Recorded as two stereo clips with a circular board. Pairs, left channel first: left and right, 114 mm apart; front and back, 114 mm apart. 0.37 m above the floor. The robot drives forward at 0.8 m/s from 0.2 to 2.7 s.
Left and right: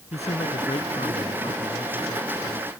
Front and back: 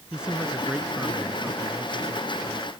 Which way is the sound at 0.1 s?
95° left.